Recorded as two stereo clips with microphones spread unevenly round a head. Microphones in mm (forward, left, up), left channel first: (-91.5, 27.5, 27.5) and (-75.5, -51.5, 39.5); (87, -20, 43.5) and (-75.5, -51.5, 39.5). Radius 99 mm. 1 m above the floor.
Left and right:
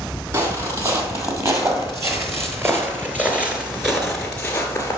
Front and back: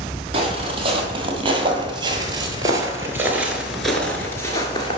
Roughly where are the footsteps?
Behind right.